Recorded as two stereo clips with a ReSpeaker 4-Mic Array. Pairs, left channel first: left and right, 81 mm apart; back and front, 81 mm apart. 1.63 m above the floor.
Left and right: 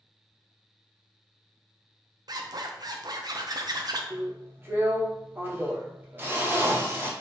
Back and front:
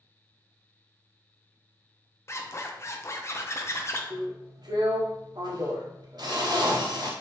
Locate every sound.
2.3 s a zipper: 125° right, 0.6 m
4.1 s a drill: 25° right, 0.9 m